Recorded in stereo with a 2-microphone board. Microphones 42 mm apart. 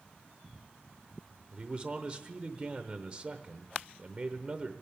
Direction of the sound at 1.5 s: 20° right (ahead or behind).